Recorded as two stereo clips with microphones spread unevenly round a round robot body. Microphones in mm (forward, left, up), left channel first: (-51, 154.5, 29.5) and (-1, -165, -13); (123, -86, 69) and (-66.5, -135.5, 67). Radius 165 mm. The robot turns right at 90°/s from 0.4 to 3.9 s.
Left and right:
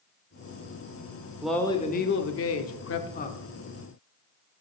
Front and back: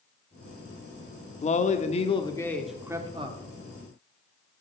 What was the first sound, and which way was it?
A man speaking, 10° right.